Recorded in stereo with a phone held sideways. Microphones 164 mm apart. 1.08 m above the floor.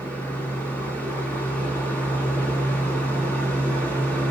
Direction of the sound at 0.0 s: 10° left (ahead or behind).